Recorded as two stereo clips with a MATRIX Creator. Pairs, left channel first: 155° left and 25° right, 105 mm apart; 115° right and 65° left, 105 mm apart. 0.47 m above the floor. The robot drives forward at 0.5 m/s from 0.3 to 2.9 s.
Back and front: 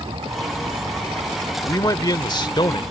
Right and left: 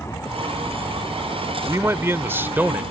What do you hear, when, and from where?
0.0 s an aircraft: 50° right; by 2.9 s 60° right
1.6 s a man speaking: 120° left; by 2.8 s 135° left